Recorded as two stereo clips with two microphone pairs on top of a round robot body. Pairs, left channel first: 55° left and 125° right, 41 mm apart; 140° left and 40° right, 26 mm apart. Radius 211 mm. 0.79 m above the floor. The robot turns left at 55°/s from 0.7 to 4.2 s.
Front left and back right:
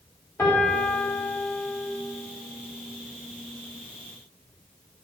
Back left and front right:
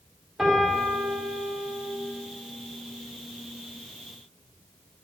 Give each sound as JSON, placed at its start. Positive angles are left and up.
{"t": 0.4, "sound": "a piano", "azimuth_deg": 40, "distance_m": 3.0}